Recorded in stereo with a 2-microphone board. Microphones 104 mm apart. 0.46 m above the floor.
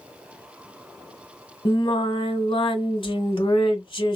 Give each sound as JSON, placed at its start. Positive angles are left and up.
{"t": 1.6, "sound": "singing", "side_deg": 60, "distance_m": 1.2}